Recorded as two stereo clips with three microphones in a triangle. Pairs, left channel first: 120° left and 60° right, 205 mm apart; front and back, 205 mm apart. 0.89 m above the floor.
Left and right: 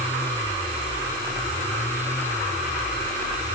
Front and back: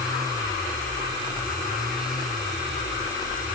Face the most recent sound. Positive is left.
No sound to turn to.